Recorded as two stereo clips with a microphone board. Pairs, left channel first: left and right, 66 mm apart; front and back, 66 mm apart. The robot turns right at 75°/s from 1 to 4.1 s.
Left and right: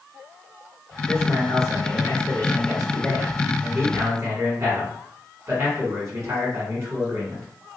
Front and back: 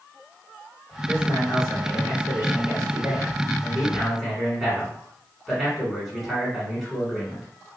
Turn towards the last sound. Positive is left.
turn(degrees=-95)